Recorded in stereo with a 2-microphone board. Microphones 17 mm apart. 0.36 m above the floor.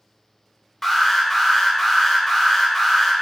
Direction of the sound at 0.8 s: 15° left (ahead or behind).